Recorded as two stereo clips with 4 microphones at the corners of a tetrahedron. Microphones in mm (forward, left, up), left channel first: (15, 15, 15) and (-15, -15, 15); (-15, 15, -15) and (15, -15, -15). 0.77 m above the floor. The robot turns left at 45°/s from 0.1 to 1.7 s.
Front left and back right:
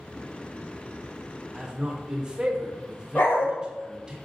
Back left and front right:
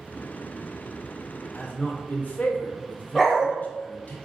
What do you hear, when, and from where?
1.5 s a man speaking: 165° left, 0.6 m; by 4.2 s 160° left, 0.6 m
3.1 s a dog barking: 45° left, 0.7 m